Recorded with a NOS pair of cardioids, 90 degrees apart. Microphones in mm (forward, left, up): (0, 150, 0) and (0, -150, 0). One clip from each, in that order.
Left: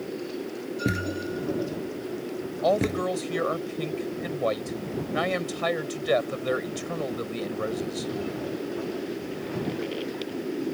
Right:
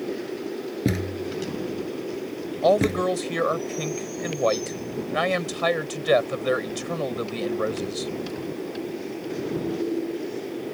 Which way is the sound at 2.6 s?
25° right.